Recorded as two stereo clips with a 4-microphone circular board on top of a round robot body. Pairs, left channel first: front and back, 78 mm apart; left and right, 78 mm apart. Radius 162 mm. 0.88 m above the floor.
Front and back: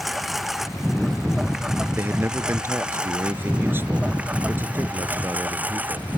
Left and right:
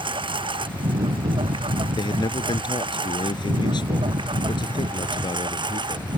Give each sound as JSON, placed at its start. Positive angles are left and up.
{"t": 0.0, "sound": "a lawn mower", "azimuth_deg": -90}
{"t": 2.0, "sound": "a man speaking", "azimuth_deg": 115}